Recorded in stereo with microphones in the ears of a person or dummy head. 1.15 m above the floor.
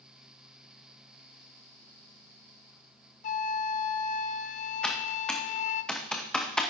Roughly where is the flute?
Left.